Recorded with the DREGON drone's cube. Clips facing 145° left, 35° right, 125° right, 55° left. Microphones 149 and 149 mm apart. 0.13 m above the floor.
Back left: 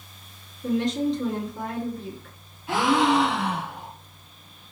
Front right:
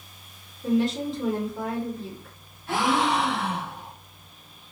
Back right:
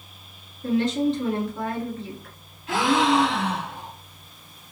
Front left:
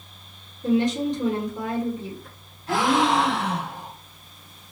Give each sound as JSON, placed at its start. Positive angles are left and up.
{"t": 0.6, "sound": "a woman speaking", "azimuth_deg": 40, "distance_m": 1.4}
{"t": 2.7, "sound": "a gasp", "azimuth_deg": 75, "distance_m": 1.8}